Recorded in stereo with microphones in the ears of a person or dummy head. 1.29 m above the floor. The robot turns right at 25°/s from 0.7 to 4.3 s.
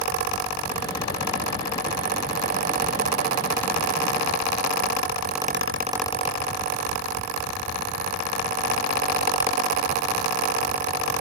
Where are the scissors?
I don't hear scissors.